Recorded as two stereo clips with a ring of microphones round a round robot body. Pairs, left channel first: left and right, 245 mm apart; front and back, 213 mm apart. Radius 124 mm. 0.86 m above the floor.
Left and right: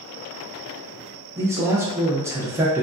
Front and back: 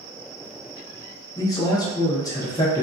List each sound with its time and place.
1.4 s a man speaking: 35° right, 0.6 m